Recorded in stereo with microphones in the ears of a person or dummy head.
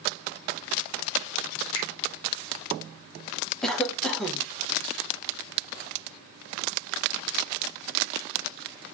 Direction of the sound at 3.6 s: Centre (ahead or behind).